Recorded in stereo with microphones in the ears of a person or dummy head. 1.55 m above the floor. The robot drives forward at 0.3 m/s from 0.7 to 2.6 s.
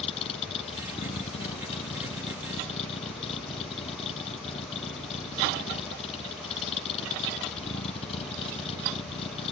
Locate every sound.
0.0 s a vehicle: 30° left (ahead or behind)